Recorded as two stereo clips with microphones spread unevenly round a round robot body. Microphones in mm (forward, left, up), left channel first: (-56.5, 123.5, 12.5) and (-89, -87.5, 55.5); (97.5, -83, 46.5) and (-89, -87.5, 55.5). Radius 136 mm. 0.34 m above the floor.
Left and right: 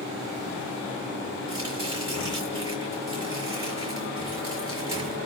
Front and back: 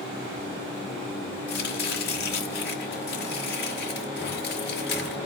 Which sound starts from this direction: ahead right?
Chopping, at 1.5 s.